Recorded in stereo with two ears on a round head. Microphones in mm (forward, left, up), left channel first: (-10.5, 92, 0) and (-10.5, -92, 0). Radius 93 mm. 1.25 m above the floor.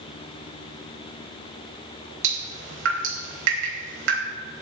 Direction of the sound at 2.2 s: 70° right (ahead or behind).